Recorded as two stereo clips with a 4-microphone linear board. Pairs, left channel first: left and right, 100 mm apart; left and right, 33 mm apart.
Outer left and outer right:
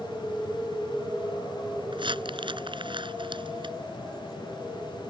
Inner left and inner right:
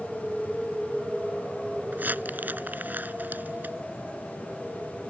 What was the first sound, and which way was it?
Crumpling, 55° right (ahead or behind).